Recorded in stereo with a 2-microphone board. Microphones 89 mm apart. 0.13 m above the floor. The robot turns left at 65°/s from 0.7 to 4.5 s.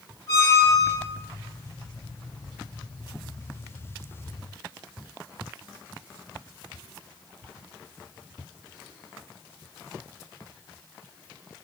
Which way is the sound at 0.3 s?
40° left (ahead or behind).